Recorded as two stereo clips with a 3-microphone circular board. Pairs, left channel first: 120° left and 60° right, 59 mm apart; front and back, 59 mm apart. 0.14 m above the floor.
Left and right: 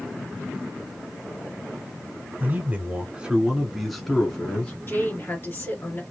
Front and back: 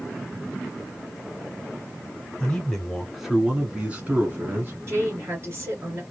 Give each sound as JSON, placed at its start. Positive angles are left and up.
{"t": 2.4, "sound": "a man speaking", "azimuth_deg": -60, "distance_m": 1.5}
{"t": 4.9, "sound": "a woman speaking", "azimuth_deg": 155, "distance_m": 2.5}